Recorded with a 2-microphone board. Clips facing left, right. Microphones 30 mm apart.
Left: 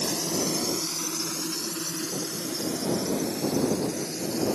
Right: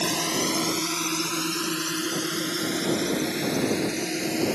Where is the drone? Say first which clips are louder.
Right 3 dB; 75° right (ahead or behind).